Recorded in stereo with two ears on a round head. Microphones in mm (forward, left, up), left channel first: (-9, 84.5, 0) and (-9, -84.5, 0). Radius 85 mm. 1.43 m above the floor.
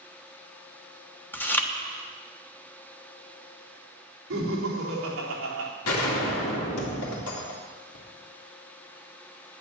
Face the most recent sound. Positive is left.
turn(degrees=80)